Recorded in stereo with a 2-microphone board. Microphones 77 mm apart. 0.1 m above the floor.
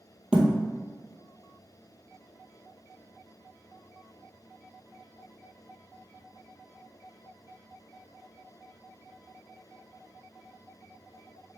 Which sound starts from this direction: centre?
A thud, at 0.3 s.